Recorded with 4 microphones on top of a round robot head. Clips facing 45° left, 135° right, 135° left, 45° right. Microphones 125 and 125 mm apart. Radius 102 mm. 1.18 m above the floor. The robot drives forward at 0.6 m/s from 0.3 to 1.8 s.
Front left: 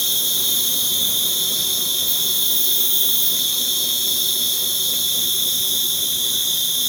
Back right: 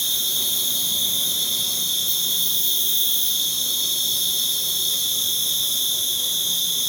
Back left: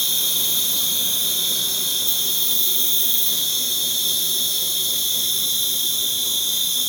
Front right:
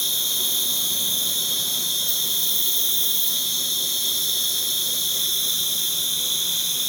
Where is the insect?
120° left, 1.3 m; by 6.9 s 145° left, 2.0 m.